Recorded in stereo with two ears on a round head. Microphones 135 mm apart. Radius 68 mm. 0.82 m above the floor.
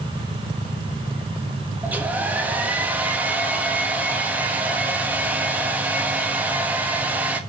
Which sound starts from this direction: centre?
A hair dryer, at 1.8 s.